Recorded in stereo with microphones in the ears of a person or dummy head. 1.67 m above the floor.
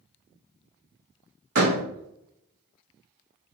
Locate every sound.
1.6 s a door slam: 60° right (ahead or behind), 1.9 m